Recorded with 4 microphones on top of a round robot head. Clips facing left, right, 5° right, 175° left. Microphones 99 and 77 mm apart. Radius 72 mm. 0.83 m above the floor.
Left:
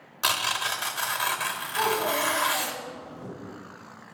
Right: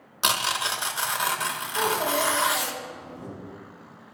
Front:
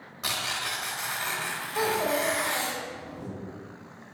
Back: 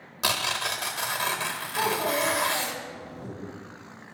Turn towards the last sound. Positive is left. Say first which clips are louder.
# right 1 dB, even
turn(degrees=-40)